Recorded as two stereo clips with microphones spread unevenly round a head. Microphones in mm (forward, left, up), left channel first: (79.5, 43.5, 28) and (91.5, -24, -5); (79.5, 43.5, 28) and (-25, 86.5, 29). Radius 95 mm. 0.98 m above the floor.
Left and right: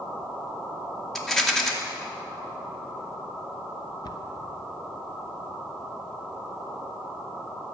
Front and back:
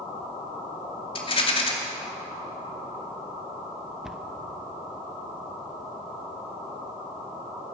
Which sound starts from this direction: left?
A cupboard door, at 4.0 s.